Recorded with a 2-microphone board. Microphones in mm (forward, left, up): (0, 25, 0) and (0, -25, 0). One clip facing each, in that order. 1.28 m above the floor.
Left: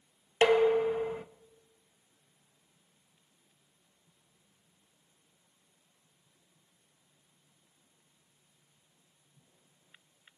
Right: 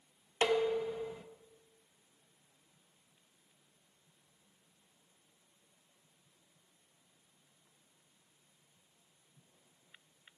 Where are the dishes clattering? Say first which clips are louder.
Left 7 dB; 55° left (ahead or behind), 1.1 m.